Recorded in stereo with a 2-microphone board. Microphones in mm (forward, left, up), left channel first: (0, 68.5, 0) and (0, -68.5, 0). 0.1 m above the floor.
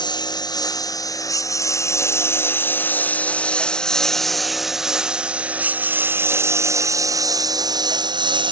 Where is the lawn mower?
35° left (ahead or behind); by 8.5 s 35° right (ahead or behind).